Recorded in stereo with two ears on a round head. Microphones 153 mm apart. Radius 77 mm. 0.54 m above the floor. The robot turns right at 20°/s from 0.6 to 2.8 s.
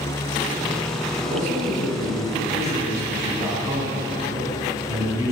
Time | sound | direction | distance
1.2 | a man speaking | 50° right | 4.5 m